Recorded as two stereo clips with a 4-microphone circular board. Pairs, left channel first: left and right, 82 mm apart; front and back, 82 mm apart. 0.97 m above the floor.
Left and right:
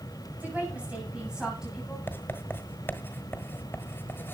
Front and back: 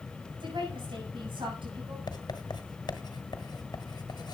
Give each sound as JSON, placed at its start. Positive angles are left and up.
{"t": 0.4, "sound": "a woman speaking", "azimuth_deg": -160, "distance_m": 7.0}
{"t": 2.1, "sound": "writing", "azimuth_deg": 25, "distance_m": 1.4}